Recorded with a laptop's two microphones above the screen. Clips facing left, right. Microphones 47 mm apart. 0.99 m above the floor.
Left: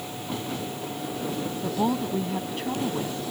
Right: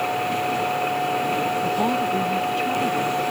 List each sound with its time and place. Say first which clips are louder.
0.0 s a machine running: right 11 dB; 90° right
1.6 s a woman speaking: right 5 dB; centre (ahead or behind)